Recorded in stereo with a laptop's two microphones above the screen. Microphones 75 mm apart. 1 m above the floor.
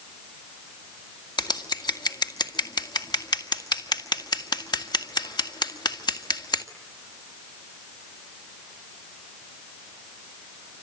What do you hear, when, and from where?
1.4 s scissors: 70° left (ahead or behind), 1.8 m